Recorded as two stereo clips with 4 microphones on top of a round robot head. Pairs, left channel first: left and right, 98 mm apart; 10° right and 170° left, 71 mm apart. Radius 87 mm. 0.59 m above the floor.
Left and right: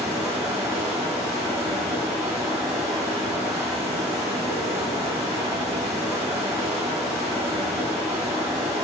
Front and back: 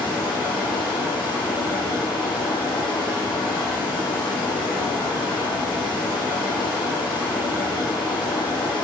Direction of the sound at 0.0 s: 20° right.